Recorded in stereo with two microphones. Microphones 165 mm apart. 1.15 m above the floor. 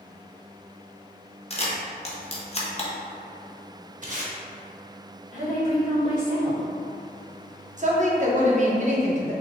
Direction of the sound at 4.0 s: 50° right (ahead or behind).